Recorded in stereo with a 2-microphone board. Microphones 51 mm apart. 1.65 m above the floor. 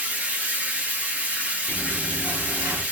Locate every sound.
0.0 s running water: 25° right (ahead or behind), 0.8 m
1.7 s chewing: 70° right (ahead or behind), 2.5 m